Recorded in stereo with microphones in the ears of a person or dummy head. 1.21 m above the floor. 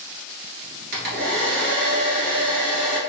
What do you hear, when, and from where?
0.9 s a hair dryer: 60° right (ahead or behind), 1.1 m